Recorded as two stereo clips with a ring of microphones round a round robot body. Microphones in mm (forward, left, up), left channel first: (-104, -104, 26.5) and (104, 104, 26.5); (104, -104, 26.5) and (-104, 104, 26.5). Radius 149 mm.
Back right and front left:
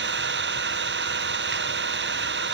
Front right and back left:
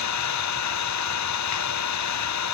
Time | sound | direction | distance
0.0 | an engine running | 10° right | ?